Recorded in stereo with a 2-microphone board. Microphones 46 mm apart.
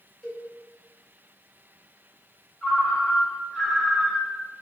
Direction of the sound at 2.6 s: 10° right (ahead or behind).